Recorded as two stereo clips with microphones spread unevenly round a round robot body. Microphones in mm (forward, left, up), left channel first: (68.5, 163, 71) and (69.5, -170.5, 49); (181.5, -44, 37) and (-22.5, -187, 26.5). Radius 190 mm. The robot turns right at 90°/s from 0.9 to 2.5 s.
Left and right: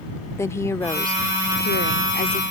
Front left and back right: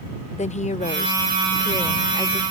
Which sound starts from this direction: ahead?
A woman speaking, at 0.4 s.